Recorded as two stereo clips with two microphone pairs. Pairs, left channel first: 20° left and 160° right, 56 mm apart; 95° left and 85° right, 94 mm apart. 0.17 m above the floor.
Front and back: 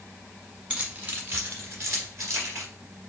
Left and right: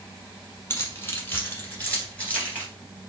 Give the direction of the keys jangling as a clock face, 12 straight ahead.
7 o'clock.